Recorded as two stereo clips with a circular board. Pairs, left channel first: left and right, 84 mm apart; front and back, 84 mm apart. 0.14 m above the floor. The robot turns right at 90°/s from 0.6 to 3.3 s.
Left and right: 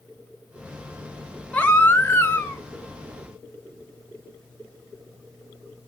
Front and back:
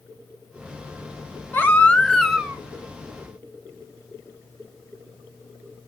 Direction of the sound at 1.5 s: 30° left.